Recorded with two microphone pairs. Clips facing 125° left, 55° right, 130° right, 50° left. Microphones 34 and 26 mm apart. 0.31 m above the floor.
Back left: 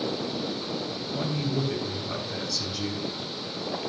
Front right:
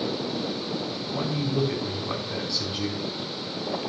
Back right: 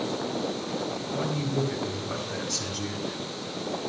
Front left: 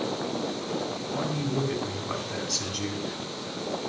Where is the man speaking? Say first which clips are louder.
Front right 2 dB, even; 10° right, 3 m.